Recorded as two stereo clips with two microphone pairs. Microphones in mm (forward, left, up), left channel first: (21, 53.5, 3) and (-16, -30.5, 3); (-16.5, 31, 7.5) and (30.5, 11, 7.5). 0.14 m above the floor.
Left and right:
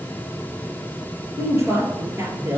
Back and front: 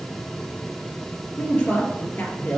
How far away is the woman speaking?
About 3 m.